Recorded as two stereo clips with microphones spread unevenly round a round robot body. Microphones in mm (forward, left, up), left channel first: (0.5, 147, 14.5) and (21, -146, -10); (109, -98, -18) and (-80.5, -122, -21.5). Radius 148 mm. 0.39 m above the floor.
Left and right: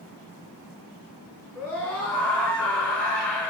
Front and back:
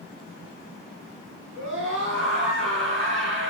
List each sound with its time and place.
1.6 s a scream: straight behind, 6.5 m